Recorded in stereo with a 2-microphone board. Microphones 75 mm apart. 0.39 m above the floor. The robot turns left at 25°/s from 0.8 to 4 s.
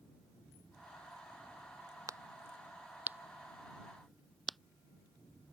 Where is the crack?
45° right (ahead or behind); by 4.6 s centre (ahead or behind).